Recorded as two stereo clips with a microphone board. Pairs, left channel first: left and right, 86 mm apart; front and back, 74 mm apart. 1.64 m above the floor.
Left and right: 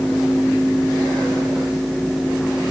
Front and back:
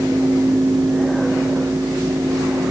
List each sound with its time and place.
Only background noise.